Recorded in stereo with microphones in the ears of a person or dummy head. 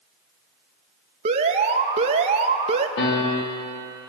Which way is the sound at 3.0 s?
80° left.